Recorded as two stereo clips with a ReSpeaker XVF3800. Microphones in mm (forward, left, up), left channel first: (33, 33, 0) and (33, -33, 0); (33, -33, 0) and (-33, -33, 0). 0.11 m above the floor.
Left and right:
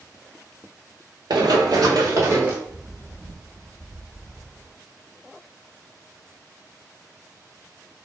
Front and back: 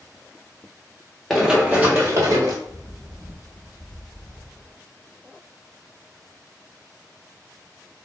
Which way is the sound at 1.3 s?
90° right.